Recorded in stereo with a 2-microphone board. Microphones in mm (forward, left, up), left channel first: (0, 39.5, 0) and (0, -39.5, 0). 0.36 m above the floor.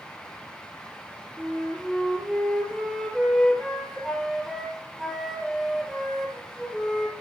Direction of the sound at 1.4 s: Centre (ahead or behind).